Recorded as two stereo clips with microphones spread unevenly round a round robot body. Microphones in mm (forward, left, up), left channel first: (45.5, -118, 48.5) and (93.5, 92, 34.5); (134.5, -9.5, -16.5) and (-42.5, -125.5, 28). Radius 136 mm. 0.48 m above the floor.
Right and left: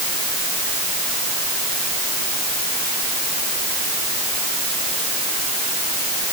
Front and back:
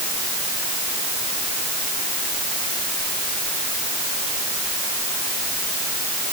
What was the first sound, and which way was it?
Only background noise.